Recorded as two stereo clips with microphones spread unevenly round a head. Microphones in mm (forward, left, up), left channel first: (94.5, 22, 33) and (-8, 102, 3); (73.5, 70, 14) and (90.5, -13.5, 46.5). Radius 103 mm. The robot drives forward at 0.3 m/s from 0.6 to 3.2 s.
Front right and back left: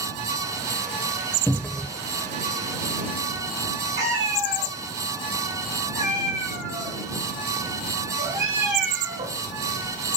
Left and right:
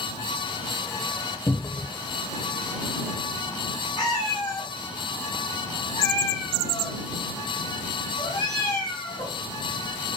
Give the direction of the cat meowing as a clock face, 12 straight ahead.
6 o'clock.